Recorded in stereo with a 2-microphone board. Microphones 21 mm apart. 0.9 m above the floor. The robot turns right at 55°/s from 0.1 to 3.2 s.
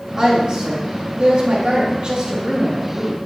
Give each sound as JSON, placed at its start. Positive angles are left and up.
{"t": 0.2, "sound": "a woman speaking", "azimuth_deg": -145, "distance_m": 2.5}